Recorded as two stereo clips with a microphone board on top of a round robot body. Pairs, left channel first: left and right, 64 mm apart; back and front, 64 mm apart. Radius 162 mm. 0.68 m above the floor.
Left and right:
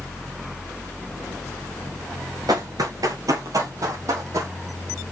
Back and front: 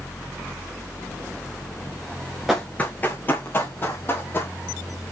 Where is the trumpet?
No trumpet in this recording.